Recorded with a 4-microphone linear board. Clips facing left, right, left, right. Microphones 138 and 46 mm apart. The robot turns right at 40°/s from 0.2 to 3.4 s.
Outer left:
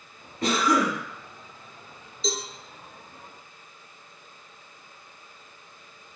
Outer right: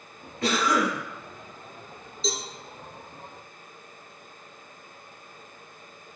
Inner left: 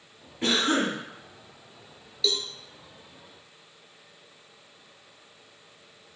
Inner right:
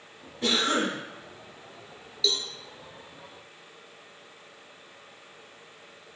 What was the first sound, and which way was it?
A cough, 25° left (ahead or behind).